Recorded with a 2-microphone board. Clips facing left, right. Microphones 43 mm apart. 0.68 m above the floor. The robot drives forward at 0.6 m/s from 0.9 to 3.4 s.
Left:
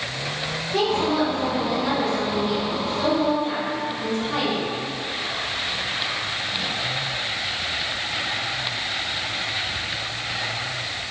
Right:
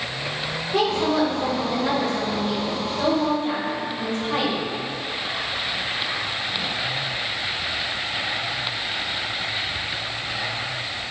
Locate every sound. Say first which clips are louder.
0.7 s a woman speaking: right 1 dB; 20° right (ahead or behind), 2 m; by 4.7 s 10° right (ahead or behind), 3.5 m